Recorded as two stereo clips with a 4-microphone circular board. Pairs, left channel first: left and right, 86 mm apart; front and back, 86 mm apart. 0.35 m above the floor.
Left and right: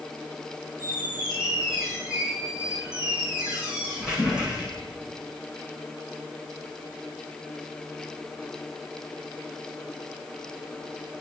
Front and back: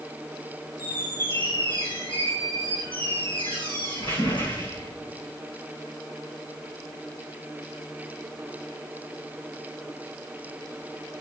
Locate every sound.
0.8 s a squeak: 10° right, 6 m